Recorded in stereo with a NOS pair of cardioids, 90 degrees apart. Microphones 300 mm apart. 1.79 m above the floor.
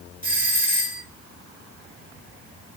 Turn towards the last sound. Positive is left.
turn(degrees=-30)